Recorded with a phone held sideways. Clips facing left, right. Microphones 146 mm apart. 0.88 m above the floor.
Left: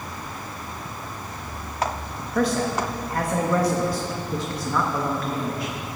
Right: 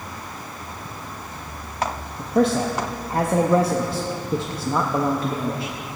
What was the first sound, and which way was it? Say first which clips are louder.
A man speaking: right 4 dB; 25° right (ahead or behind).